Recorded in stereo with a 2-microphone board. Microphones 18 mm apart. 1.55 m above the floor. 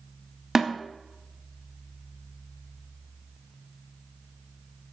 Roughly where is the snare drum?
Right.